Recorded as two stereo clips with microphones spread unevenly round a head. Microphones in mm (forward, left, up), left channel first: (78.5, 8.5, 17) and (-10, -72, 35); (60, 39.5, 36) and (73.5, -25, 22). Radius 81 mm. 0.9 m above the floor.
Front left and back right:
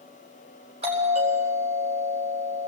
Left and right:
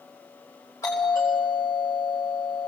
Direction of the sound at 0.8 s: 170° left.